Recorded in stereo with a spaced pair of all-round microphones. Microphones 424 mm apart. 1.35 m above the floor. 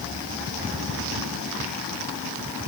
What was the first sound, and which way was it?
Only background noise.